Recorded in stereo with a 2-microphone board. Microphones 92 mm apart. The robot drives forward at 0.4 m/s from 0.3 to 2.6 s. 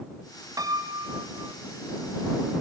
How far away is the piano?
About 1.7 m.